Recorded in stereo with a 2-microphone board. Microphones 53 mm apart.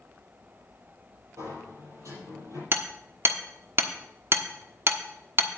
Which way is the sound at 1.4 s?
70° right (ahead or behind).